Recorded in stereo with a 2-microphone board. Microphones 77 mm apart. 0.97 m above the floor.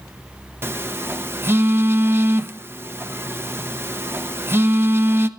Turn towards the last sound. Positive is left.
turn(degrees=-30)  # may be behind; listen again after turning